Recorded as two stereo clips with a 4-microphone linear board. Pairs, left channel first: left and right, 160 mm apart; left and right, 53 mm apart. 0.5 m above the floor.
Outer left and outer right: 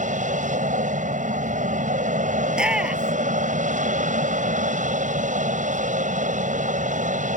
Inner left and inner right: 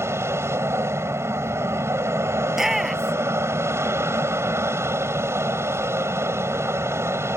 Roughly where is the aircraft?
Right.